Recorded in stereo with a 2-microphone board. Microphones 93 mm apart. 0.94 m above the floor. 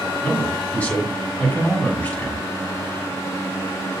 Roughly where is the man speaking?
Centre.